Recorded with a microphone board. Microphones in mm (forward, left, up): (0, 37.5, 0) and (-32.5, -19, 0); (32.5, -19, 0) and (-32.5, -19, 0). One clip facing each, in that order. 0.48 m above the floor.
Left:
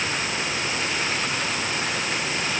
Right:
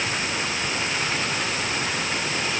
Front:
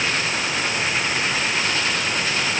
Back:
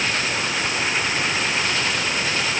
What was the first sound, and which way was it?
Only background noise.